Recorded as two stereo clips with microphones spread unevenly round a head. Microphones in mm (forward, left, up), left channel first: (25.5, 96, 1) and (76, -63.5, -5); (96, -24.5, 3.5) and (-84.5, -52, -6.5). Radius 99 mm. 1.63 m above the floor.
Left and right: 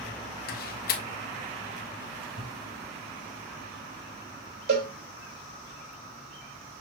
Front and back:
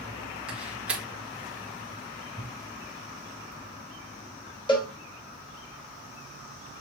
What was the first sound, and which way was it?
A door slam, 100° left.